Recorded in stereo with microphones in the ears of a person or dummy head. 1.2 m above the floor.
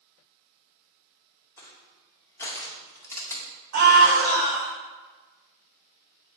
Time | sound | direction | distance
1.6 | crushing | 15° left (ahead or behind) | 2 m
3.7 | a scream | 65° right (ahead or behind) | 4.5 m